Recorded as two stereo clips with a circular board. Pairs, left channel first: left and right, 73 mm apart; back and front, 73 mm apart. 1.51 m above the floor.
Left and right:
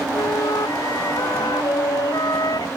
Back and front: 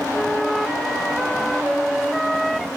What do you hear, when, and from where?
0.1 s a flute: 90° left